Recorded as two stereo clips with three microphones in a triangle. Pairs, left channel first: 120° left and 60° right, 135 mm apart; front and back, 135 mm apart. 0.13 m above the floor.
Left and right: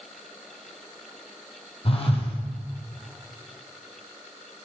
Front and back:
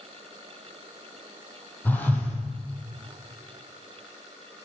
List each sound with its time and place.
1.9 s a phone buzzing: 75° left, 1.3 m